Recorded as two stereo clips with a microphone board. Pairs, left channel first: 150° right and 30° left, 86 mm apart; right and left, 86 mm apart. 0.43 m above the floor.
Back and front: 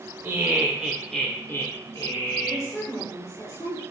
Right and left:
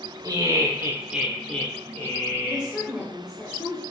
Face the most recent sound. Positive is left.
turn(degrees=-165)